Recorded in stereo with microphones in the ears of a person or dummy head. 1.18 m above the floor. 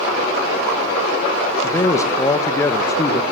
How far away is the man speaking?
About 0.5 m.